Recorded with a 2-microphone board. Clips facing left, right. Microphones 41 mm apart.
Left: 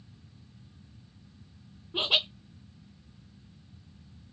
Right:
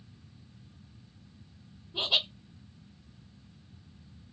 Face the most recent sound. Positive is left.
turn(degrees=60)  # may be behind; listen again after turning